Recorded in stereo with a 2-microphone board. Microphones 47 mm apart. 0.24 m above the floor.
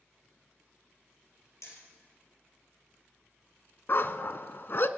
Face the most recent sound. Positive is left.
turn(degrees=50)  # may be behind; listen again after turning